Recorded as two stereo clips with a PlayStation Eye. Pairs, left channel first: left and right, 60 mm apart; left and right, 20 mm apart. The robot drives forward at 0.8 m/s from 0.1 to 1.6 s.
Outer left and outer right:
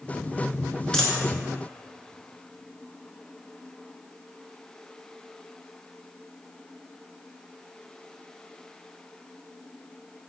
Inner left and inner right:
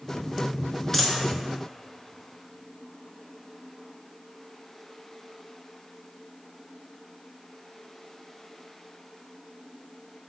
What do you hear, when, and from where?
0.9 s a dropped coin: 10° left (ahead or behind), 0.6 m